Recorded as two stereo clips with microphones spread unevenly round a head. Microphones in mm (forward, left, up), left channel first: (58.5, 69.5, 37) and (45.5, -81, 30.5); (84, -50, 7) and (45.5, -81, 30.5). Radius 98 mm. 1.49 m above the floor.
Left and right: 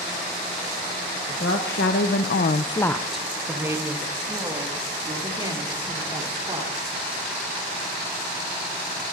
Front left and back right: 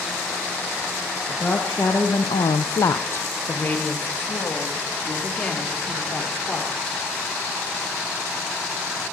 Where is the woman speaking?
120° left, 1.3 m; by 7.0 s 35° right, 4.5 m.